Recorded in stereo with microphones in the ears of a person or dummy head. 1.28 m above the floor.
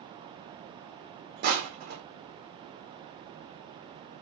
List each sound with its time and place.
1.4 s crushing: 50° right (ahead or behind), 0.7 m